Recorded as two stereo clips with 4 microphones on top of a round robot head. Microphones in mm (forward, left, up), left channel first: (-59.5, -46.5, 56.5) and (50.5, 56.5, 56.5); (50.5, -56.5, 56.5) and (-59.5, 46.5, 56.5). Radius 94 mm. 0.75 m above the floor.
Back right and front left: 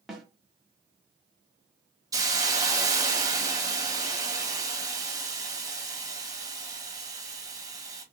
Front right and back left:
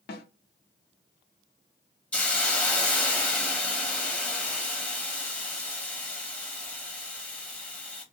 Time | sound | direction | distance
0.1 | a snare drum | 45° right | 0.9 m
2.1 | a hiss | 25° left | 1.1 m